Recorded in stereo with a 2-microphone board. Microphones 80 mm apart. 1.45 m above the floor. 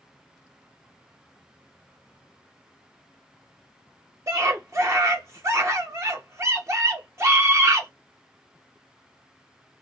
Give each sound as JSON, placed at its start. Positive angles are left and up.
{"t": 4.3, "sound": "a scream", "side_deg": -40, "distance_m": 0.5}